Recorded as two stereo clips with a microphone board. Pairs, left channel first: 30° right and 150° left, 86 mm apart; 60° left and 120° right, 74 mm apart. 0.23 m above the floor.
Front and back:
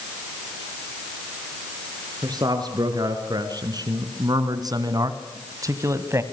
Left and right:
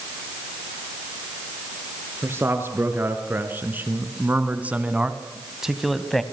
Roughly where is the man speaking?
Behind.